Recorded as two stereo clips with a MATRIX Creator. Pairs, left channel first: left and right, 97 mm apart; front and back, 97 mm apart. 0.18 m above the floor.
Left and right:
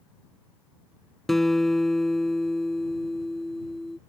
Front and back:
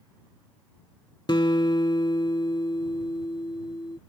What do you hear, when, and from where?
1.3 s a guitar: 5° left